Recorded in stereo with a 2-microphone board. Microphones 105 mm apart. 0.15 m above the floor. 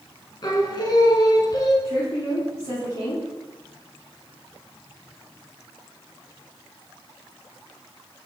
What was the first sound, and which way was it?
Singing, 40° left (ahead or behind).